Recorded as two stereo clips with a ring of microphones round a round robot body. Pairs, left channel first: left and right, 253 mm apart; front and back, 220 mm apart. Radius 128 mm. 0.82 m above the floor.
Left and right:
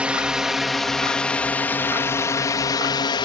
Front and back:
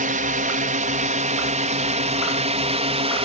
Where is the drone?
170° right; by 3.3 s 145° left.